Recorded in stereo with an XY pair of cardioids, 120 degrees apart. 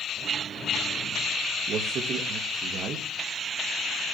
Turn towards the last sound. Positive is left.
turn(degrees=-60)